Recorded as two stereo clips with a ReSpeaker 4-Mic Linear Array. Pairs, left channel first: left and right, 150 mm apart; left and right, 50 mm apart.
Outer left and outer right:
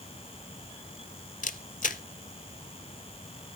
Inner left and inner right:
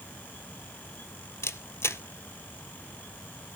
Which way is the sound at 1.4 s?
65° left (ahead or behind).